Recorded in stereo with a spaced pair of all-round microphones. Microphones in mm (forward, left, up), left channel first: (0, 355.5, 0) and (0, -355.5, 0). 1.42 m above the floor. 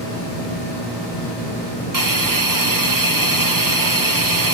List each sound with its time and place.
1.9 s a hiss: 30° right (ahead or behind)